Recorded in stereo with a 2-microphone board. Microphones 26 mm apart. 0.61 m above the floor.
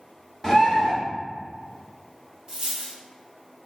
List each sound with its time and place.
0.4 s a bird: 10° left (ahead or behind), 1.7 m
2.5 s a dropped coin: 25° right (ahead or behind), 1.7 m